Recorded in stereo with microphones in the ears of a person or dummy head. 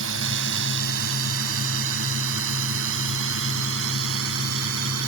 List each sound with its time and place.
0.0 s a drone: 80° right; by 5.1 s 85° right